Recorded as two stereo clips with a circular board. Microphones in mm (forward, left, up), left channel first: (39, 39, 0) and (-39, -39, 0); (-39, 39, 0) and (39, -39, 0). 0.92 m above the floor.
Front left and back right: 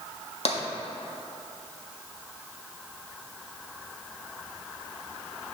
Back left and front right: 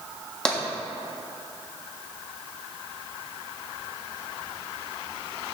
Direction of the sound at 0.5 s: 55° left.